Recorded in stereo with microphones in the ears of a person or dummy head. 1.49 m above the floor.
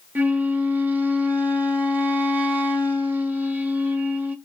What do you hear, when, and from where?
0.1 s a flute: 10° right (ahead or behind), 0.6 m